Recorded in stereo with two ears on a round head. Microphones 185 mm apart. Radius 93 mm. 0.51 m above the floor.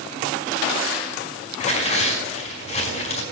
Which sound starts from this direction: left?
Tearing paper, at 1.6 s.